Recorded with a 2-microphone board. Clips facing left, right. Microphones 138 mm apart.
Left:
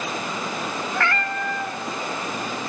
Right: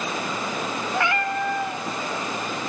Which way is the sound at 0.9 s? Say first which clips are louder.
Right 3 dB; 15° right (ahead or behind).